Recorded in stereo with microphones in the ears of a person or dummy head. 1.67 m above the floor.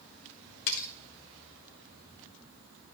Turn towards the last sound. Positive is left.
turn(degrees=40)  # may be behind; listen again after turning